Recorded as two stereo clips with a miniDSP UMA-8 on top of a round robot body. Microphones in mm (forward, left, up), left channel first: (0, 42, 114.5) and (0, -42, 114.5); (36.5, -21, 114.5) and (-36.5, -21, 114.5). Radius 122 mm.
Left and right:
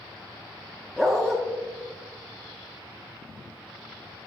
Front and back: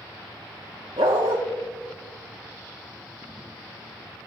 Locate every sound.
1.0 s a dog barking: straight behind, 0.5 m